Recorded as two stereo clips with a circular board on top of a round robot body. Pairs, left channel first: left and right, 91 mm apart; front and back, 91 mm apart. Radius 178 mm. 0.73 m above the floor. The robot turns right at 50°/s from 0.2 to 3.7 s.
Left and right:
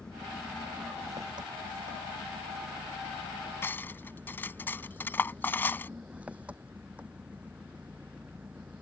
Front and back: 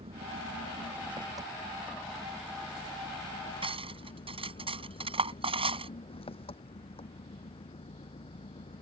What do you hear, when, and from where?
0.0 s an engine running: 170° left; by 8.8 s 15° right
3.6 s cutlery clinking: 155° left; by 5.9 s 160° left